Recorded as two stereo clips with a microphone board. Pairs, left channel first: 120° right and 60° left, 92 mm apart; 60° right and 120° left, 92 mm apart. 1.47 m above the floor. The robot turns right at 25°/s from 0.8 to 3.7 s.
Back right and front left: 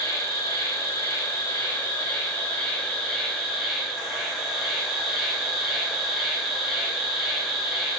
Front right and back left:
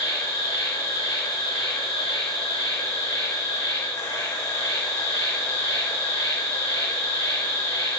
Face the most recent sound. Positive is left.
turn(degrees=-25)